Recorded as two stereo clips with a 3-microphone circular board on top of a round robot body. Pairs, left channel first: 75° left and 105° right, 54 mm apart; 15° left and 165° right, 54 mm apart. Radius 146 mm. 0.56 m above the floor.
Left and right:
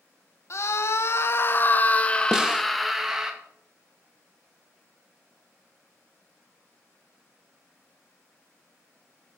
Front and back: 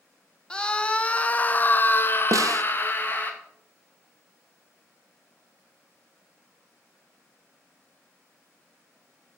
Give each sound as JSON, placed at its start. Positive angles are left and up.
{"t": 0.5, "sound": "a scream", "azimuth_deg": 90, "distance_m": 1.4}
{"t": 2.3, "sound": "a snare drum", "azimuth_deg": 175, "distance_m": 0.5}